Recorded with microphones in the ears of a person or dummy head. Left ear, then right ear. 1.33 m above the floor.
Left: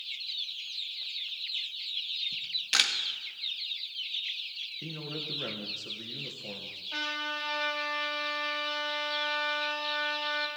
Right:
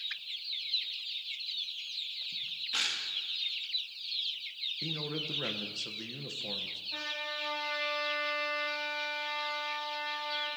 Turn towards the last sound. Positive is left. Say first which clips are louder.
# left 6 dB
turn(degrees=55)  # may be behind; listen again after turning